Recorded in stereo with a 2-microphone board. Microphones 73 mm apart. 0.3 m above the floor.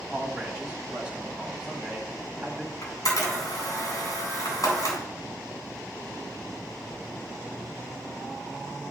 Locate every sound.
0.1 s a man speaking: 10° right (ahead or behind), 1.8 m
2.8 s a camera shutter: 55° left (ahead or behind), 2.5 m